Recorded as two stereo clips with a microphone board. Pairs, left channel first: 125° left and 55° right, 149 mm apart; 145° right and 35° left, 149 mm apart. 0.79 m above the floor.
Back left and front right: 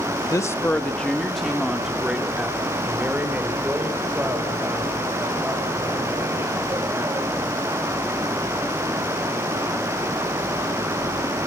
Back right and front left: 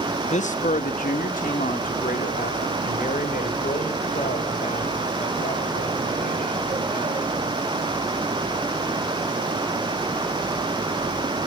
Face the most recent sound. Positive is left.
turn(degrees=-130)